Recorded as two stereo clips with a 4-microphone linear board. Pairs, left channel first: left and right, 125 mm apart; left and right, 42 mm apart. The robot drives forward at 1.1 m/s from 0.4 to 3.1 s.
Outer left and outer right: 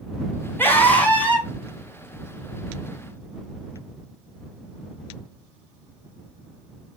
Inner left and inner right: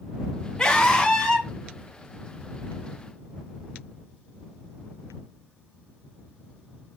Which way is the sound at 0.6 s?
15° left (ahead or behind).